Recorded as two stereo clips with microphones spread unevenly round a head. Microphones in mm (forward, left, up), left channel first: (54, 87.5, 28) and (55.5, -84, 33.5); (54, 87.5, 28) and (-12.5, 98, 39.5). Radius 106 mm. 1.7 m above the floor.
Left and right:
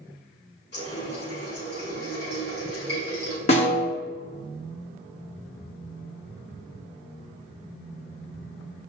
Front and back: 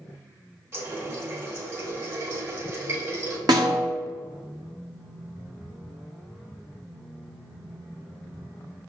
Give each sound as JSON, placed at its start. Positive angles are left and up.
{"t": 0.7, "sound": "a running tap", "azimuth_deg": 135, "distance_m": 3.0}
{"t": 3.5, "sound": "a snare drum", "azimuth_deg": 150, "distance_m": 1.2}